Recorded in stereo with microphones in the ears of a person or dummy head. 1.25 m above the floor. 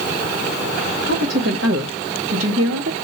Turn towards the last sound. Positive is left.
turn(degrees=-75)  # may be behind; listen again after turning